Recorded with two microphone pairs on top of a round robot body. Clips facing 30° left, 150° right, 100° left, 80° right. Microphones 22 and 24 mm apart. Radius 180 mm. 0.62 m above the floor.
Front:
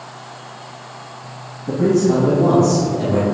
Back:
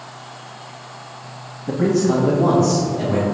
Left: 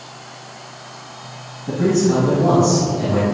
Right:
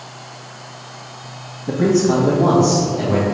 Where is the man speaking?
145° right, 1.2 m; by 3.2 s 105° right, 2.5 m.